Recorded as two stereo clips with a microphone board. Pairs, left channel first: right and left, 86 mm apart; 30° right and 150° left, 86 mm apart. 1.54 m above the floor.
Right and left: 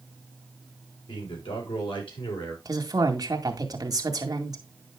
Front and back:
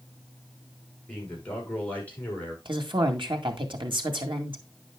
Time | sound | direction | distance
1.1 | a man speaking | 105° right | 5.5 m
2.6 | a woman speaking | 135° left | 2 m